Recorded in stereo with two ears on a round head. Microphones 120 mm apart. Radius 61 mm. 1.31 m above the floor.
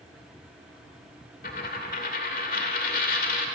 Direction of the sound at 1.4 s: 70° left (ahead or behind).